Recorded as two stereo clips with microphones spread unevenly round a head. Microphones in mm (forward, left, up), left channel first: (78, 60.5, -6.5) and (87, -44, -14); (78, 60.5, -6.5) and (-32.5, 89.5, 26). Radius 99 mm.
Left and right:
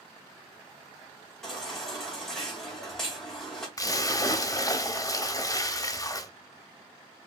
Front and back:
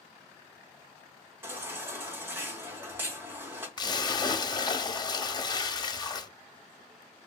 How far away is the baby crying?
About 0.6 m.